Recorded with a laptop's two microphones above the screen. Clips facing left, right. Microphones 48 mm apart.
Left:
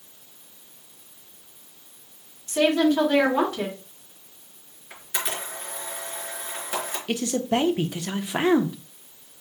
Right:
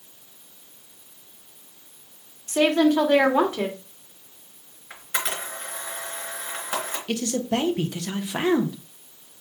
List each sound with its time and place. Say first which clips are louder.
2.5 s a woman speaking: right 1 dB; 40° right (ahead or behind), 2 m
4.9 s a camera shutter: right 2 dB; 40° right (ahead or behind), 3 m
7.1 s a man speaking: left 1 dB; 15° left (ahead or behind), 0.8 m